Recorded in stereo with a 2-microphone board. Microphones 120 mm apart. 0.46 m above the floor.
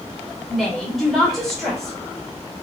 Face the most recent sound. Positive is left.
turn(degrees=0)  # may be behind; listen again after turning